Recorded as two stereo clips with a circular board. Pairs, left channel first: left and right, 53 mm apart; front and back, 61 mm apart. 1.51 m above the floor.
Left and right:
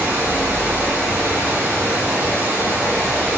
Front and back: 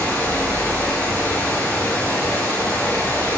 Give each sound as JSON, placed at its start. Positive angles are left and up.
{"t": 0.0, "sound": "running water", "azimuth_deg": -55, "distance_m": 3.0}